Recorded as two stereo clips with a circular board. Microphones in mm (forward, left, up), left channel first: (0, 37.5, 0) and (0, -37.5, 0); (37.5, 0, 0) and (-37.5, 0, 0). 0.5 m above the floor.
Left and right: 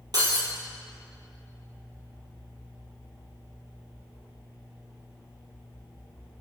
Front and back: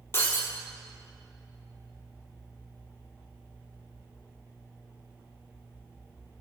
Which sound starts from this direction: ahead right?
Breaking glass, at 0.1 s.